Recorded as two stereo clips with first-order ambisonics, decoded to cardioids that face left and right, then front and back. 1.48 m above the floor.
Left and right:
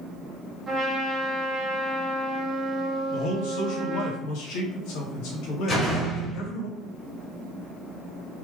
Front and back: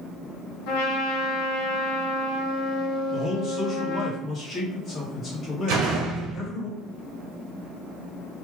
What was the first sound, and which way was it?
A trumpet, 15° right.